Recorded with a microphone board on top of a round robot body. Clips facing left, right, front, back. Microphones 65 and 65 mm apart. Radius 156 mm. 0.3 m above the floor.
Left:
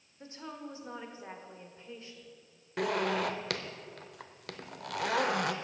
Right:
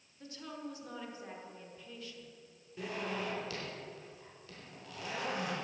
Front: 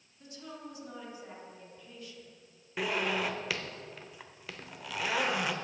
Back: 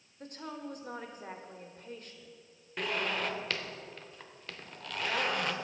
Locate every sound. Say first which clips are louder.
0.2 s a woman speaking: left 1 dB, back 4 dB; 150° left, 1.7 m
2.8 s a zipper: left 8 dB, front 2 dB; 80° left, 0.9 m